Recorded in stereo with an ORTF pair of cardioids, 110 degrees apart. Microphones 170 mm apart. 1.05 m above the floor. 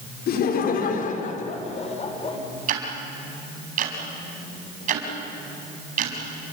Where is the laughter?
65° left, 4 m; by 2.4 s 30° left, 5 m.